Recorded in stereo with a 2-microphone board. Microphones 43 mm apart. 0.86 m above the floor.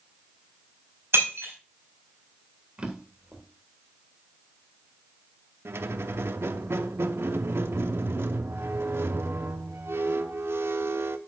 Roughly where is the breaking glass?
Right.